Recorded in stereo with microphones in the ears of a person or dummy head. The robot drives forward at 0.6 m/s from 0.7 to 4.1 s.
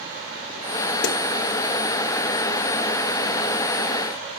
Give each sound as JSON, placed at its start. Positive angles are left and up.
{"t": 1.0, "sound": "a snare drum", "side_deg": 60, "distance_m": 0.7}